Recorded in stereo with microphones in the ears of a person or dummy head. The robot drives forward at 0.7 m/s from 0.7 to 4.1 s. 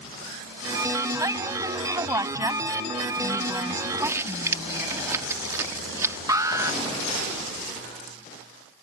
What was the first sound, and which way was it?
A woman speaking, 20° right (ahead or behind).